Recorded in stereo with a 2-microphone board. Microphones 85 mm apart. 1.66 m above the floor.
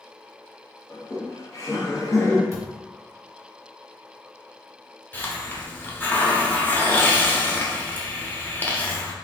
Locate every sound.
0.9 s laughter: 40° left (ahead or behind), 0.9 m
2.5 s a thud: 30° right (ahead or behind), 1.1 m
5.1 s a hiss: 20° left (ahead or behind), 0.5 m